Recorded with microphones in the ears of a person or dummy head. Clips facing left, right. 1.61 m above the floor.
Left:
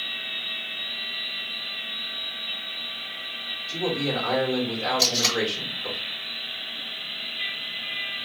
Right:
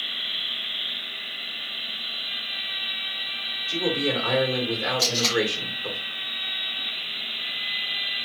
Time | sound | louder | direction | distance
3.7 | a man speaking | right 1 dB | 15° right (ahead or behind) | 1.4 m
5.0 | tape being pulled | right 2 dB | 20° left (ahead or behind) | 1.2 m